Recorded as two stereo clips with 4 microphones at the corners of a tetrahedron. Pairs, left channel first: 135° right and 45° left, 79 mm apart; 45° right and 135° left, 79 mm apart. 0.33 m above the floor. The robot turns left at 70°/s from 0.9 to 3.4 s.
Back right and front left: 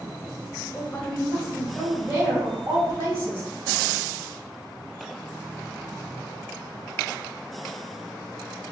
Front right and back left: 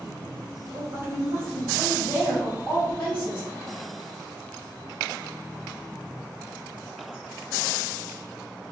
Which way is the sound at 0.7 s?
170° left.